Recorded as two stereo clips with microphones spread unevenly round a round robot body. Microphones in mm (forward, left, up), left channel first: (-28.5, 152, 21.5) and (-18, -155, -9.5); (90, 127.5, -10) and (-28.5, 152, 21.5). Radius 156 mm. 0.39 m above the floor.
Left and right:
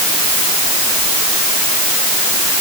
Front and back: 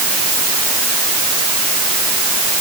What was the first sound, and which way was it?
Only background noise.